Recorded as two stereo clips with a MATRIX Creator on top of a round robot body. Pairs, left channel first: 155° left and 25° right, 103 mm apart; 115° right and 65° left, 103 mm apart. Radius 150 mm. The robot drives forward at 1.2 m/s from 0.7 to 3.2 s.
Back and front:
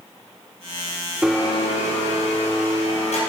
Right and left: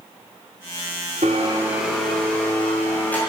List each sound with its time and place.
1.2 s a blender: 55° left, 0.6 m; by 3.2 s 175° left, 2 m